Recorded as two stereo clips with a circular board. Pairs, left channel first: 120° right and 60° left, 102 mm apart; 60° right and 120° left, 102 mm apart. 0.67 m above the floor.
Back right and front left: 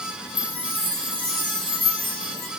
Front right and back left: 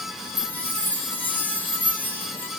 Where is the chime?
125° right, 1.2 m.